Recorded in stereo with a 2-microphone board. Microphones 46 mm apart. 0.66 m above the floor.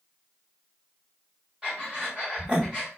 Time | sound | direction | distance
1.6 | breathing | 20° right (ahead or behind) | 1.3 m